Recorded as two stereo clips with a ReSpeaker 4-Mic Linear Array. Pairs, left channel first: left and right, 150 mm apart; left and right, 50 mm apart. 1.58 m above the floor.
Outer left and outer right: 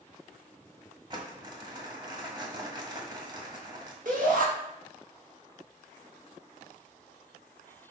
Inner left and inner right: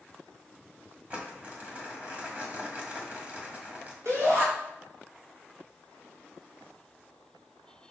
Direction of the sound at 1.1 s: 30° right (ahead or behind).